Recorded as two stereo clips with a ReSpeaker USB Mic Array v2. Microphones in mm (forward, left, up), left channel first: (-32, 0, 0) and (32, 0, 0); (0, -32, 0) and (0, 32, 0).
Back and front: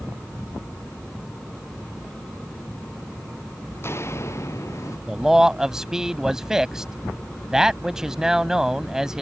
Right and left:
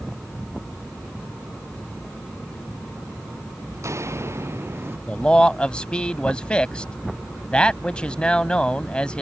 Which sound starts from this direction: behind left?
Footsteps, at 3.7 s.